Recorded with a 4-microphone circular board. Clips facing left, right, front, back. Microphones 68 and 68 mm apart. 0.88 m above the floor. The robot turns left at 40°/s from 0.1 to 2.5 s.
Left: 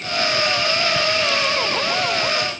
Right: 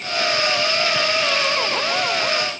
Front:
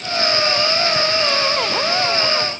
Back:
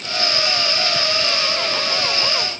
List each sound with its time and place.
Only background noise.